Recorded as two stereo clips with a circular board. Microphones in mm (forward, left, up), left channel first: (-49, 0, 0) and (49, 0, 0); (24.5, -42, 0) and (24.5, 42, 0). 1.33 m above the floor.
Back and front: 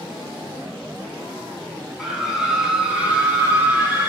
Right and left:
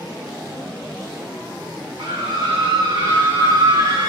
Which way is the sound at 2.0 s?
85° left.